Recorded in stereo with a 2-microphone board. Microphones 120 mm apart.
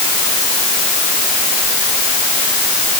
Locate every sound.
Only background noise.